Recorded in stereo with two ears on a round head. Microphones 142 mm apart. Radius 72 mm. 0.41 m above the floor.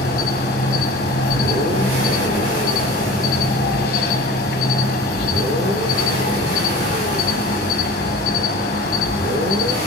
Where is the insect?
70° left (ahead or behind), 1.2 m.